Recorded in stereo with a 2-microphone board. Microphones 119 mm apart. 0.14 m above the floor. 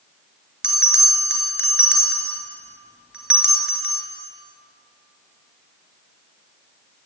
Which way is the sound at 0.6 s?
5° right (ahead or behind).